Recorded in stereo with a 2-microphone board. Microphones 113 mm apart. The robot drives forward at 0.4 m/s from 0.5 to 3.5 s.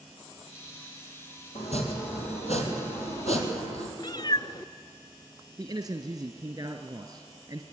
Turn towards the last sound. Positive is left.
turn(degrees=-30)  # may be behind; listen again after turning